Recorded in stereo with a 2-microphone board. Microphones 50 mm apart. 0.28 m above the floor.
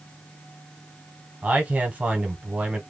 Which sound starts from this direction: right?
A man speaking, at 1.4 s.